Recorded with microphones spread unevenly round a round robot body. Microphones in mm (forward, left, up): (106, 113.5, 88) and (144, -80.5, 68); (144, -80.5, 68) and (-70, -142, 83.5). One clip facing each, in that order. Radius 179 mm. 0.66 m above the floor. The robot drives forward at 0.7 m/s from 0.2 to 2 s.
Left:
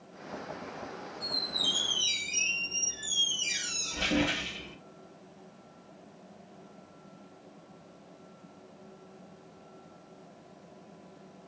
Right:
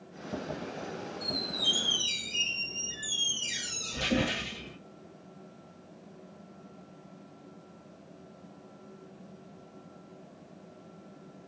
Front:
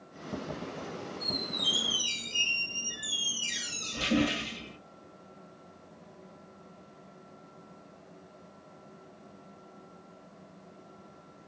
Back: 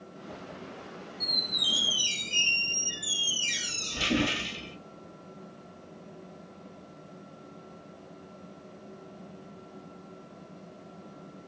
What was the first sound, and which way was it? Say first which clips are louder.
A squeak: right 3 dB, front 4 dB; 140° right.